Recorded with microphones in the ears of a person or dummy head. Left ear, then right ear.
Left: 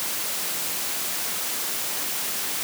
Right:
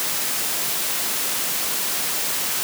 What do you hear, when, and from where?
Only background noise.